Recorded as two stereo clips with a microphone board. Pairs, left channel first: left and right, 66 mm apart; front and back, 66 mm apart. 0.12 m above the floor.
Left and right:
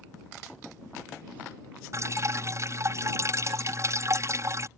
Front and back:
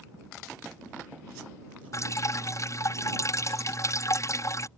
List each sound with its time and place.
1.9 s dripping: 45° right